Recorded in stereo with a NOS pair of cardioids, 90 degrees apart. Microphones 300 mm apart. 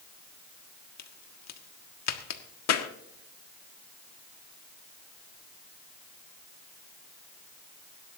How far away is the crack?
About 1.6 m.